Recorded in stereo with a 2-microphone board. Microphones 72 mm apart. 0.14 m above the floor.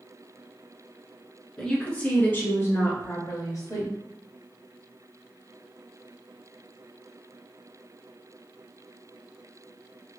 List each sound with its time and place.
1.6 s a woman speaking: 5° left (ahead or behind), 1.5 m; by 3.9 s 55° left (ahead or behind), 2 m